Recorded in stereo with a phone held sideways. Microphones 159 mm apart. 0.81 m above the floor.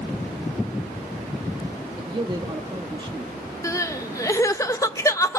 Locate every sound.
2.0 s a man speaking: 30° right (ahead or behind), 1.3 m
3.6 s crying: 20° left (ahead or behind), 0.8 m